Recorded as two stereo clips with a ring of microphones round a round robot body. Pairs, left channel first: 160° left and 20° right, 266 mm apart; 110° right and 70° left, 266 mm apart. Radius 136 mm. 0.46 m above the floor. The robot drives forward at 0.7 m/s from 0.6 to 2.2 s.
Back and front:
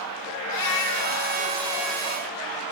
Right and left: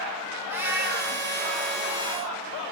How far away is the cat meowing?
About 3 m.